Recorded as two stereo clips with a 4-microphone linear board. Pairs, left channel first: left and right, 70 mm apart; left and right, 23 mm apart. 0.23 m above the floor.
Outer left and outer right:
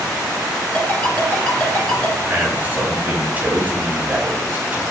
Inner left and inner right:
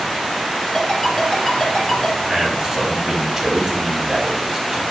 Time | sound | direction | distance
0.7 | a ringtone | 20° left (ahead or behind) | 1.9 m
2.3 | a man speaking | 25° right (ahead or behind) | 1.2 m